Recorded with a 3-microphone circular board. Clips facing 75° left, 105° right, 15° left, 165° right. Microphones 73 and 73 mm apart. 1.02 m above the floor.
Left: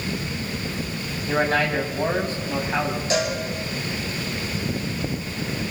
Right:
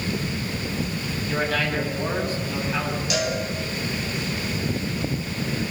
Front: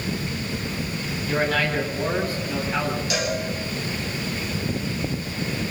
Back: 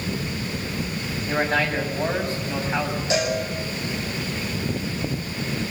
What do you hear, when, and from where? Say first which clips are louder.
1.3 s a man speaking: left 4 dB, even; 130° left, 7 m
3.1 s a cowbell: left 2 dB, back 6 dB; 130° left, 8 m